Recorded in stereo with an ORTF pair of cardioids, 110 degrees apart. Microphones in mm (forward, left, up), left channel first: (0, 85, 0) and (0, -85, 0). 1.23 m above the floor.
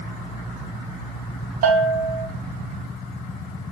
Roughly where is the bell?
Ahead right.